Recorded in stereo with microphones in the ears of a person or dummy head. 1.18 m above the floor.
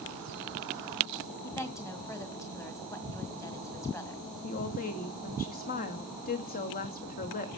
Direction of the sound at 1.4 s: 15° left (ahead or behind).